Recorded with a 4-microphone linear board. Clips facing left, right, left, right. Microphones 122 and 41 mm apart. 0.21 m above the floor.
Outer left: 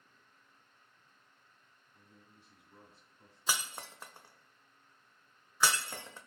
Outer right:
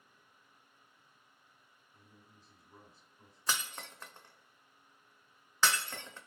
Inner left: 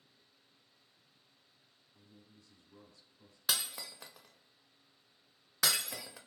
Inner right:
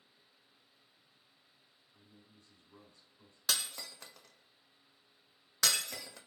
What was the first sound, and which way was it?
A man speaking, 40° right (ahead or behind).